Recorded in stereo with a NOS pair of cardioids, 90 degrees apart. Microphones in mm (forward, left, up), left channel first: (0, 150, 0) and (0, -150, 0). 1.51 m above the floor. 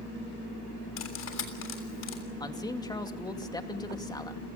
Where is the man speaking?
15° left, 2.5 m.